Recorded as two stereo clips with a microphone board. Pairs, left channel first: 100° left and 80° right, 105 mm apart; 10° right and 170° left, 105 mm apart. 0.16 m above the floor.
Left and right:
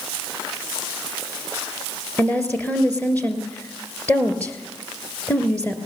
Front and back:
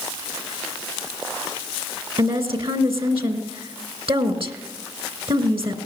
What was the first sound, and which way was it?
A woman speaking, 175° left.